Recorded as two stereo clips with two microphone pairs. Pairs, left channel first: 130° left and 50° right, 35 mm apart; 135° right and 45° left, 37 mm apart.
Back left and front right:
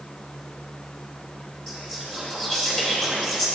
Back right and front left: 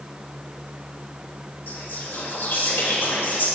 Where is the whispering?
160° right, 3 m.